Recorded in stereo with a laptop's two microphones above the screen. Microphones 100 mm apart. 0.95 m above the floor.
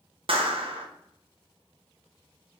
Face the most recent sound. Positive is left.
turn(degrees=-65)  # may be behind; listen again after turning